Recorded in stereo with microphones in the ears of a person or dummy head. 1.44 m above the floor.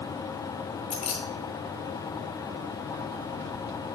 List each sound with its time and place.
0.9 s keys jangling: 35° left (ahead or behind), 0.8 m